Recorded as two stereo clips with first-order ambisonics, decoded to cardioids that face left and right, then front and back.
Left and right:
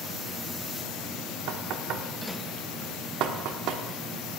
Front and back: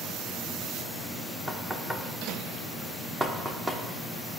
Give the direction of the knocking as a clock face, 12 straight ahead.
3 o'clock.